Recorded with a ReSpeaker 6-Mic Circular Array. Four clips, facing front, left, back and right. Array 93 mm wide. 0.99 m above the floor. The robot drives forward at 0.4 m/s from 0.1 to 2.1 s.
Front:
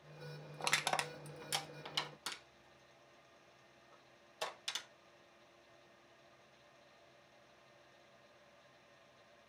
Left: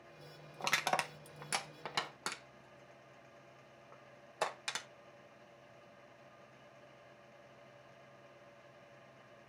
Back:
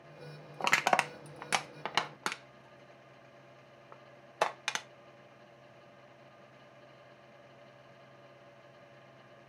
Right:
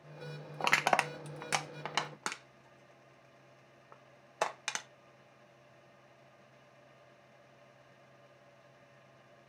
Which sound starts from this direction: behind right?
Crushing, at 0.6 s.